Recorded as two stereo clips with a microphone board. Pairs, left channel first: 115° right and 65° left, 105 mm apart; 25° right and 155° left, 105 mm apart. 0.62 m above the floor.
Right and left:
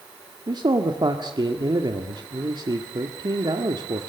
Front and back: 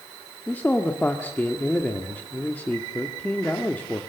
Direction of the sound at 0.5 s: 45° left.